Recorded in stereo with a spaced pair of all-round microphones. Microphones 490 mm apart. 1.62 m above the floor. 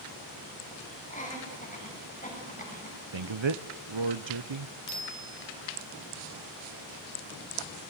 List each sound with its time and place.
1.1 s laughter: 15° left (ahead or behind), 9.5 m
3.1 s a man speaking: 65° right (ahead or behind), 0.8 m
4.9 s a bicycle bell: 70° right (ahead or behind), 7.5 m